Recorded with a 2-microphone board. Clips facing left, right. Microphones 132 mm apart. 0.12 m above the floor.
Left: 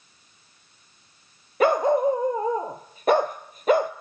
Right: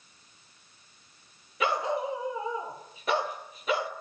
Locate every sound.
1.6 s a dog barking: 50° left (ahead or behind), 1.2 m